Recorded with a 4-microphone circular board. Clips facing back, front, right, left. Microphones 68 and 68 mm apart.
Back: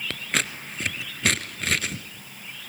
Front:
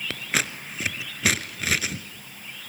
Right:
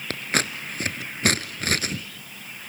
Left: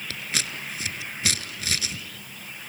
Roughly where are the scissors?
Right.